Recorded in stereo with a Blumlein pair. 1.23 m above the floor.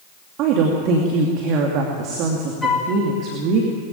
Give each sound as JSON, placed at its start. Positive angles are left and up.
{"t": 0.4, "sound": "a woman speaking", "azimuth_deg": -40, "distance_m": 2.5}
{"t": 2.6, "sound": "a flute", "azimuth_deg": 10, "distance_m": 3.5}